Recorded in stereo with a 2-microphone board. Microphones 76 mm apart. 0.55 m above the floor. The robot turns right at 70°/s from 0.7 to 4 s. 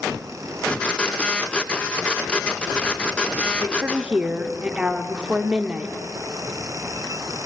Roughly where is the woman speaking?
Right.